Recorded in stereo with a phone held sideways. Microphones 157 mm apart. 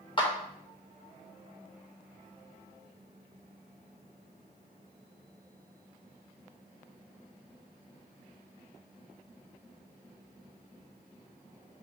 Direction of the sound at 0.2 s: 35° left (ahead or behind).